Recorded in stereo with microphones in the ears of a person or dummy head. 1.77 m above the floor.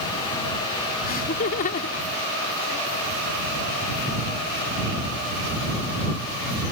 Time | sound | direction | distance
1.1 | laughter | 45° left (ahead or behind) | ?